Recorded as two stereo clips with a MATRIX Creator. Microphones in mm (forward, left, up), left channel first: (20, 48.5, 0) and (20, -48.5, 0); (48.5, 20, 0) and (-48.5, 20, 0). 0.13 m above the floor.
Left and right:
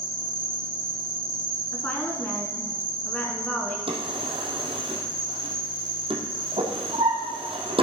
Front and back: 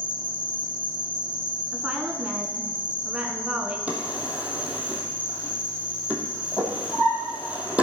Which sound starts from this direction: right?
A drawer, at 3.9 s.